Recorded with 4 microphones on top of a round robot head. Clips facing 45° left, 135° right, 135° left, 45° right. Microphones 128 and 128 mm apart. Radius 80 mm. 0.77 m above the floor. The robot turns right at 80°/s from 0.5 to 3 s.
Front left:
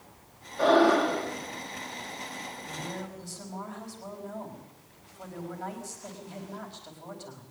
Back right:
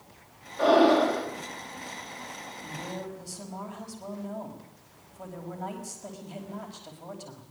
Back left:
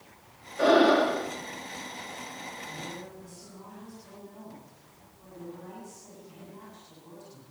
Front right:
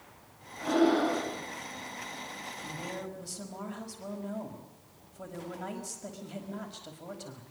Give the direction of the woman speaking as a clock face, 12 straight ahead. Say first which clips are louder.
Back right 3 dB, front right 5 dB; 3 o'clock.